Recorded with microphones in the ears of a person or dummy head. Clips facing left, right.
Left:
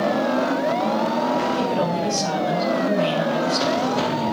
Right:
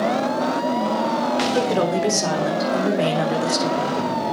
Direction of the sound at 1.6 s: 60° right (ahead or behind).